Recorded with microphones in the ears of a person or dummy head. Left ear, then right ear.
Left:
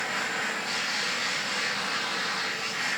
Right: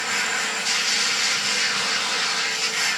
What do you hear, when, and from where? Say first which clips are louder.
0.0 s a machine running: right 5 dB; 75° right (ahead or behind), 3.5 m